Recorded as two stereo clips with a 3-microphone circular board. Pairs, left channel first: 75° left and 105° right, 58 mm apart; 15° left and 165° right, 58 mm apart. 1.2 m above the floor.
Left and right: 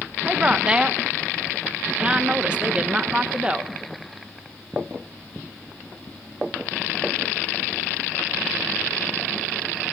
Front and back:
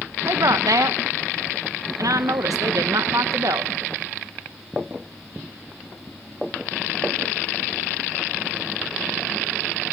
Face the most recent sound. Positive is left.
turn(degrees=-175)